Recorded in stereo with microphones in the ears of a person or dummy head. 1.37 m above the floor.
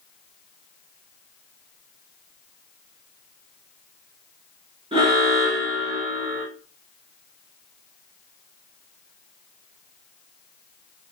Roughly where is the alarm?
Right.